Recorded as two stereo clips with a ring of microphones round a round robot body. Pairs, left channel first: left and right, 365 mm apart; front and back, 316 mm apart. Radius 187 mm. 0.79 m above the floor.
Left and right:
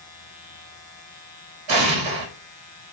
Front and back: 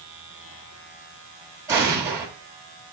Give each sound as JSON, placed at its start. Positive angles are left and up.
{"t": 1.7, "sound": "an explosion", "azimuth_deg": -100, "distance_m": 1.3}